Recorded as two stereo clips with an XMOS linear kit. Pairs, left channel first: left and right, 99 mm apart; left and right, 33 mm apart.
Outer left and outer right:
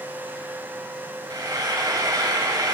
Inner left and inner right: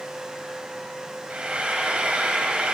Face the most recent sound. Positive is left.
turn(degrees=-40)  # may be behind; listen again after turning